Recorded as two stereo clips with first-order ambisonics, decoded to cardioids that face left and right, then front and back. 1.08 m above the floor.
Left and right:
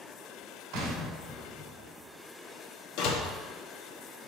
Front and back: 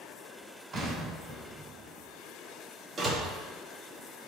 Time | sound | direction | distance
0.7 | an explosion | 125° right | 2.5 m
3.0 | a door slam | 110° left | 1.3 m